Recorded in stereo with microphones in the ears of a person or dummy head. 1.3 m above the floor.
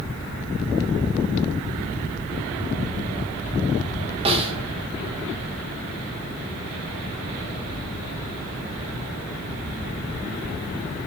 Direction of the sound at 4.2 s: 30° right (ahead or behind).